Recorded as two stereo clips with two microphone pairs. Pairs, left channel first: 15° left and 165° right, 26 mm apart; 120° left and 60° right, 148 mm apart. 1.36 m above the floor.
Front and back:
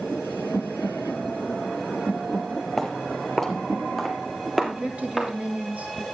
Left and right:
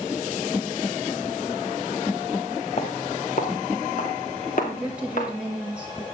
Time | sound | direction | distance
2.8 | footsteps | 95° left | 2 m
4.6 | a woman speaking | 140° right | 3 m